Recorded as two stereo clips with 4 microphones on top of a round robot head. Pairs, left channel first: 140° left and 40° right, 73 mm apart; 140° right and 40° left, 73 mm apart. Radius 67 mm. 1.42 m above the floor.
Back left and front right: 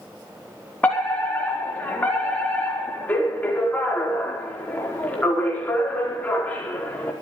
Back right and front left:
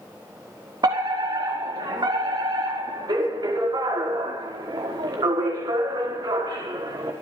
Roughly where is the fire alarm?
Left.